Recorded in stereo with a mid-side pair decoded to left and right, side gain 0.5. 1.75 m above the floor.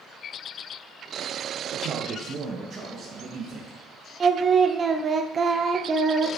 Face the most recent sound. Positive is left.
turn(degrees=-35)